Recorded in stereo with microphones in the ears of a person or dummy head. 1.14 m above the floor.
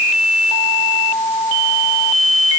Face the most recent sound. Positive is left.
No sound to turn to.